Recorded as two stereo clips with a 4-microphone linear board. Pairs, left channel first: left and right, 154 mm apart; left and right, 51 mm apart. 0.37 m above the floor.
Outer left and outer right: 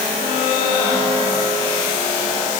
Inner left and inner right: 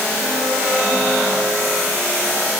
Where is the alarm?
I don't hear an alarm.